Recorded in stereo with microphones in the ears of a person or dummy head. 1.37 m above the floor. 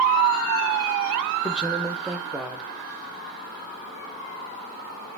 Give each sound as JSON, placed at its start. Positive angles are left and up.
{"t": 1.4, "sound": "a man speaking", "side_deg": -15, "distance_m": 0.6}